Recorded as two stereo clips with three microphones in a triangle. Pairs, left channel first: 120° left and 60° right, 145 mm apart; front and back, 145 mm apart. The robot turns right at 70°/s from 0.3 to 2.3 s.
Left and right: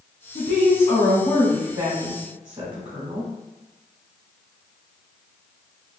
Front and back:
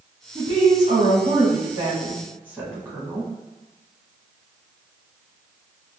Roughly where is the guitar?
No guitar in this recording.